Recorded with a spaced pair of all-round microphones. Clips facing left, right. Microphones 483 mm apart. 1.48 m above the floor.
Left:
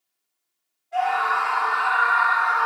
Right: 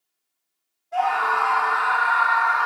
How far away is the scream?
About 1.0 m.